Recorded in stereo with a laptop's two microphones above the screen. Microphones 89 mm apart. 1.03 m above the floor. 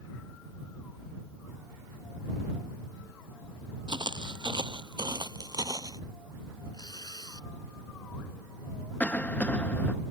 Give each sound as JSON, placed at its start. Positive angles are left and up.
{"t": 3.9, "sound": "footsteps", "side_deg": -65}
{"t": 6.7, "sound": "tearing paper", "side_deg": 55}
{"t": 9.0, "sound": "a cough", "side_deg": 20}